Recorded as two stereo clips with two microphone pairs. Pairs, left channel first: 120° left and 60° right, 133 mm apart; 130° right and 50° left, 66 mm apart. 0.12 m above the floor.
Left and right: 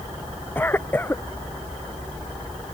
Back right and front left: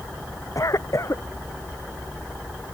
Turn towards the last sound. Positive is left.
turn(degrees=-165)